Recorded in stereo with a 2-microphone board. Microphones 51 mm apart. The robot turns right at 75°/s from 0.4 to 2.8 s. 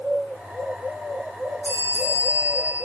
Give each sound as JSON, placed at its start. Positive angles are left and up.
{"t": 1.6, "sound": "a bell", "azimuth_deg": -60, "distance_m": 4.5}